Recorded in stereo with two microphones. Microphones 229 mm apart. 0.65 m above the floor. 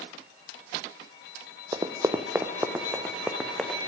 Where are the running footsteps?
20° right (ahead or behind), 1.0 m; by 3.8 s centre (ahead or behind), 1.9 m.